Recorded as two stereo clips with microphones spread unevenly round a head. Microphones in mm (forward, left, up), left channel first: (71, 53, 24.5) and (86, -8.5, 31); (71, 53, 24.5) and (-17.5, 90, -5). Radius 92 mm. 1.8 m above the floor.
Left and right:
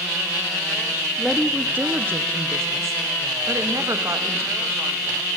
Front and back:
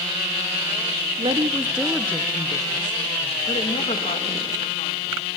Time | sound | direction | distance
1.2 | a woman speaking | 165° right | 0.8 m